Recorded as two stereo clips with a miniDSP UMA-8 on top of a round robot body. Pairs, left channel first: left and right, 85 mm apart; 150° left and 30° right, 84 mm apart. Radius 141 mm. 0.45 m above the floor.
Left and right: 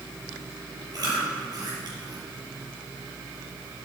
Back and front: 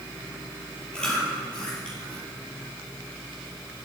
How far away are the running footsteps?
I don't hear running footsteps.